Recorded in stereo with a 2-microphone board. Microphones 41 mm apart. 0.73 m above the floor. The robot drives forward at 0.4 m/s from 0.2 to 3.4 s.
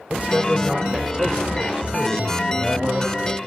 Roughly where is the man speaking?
Right.